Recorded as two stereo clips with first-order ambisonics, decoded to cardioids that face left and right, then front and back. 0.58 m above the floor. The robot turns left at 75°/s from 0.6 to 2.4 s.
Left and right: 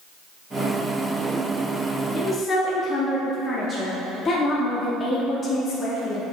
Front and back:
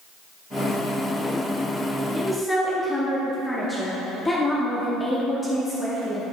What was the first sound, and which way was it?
A woman speaking, 80° left.